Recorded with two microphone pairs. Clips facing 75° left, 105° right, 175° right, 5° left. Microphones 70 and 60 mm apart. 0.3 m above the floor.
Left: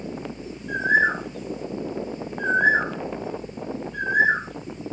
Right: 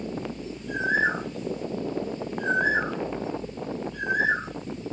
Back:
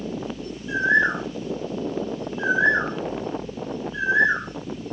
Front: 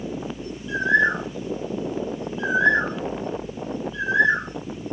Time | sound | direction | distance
0.7 | a bird | 120° left | 5 m